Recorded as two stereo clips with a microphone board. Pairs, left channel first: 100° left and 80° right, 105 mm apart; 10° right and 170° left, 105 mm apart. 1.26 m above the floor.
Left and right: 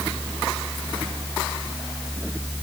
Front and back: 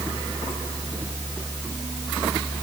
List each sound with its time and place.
Only background noise.